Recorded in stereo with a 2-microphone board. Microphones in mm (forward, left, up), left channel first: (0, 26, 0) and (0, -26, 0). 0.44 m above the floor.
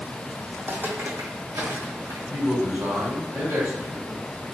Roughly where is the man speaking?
Right.